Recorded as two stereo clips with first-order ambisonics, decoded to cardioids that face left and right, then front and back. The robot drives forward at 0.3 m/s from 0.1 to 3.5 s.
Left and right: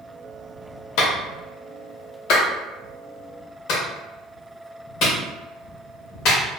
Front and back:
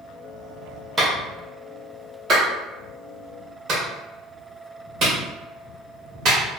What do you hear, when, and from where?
1.0 s a clap: 110° left, 1.1 m; by 6.4 s 135° left, 1.5 m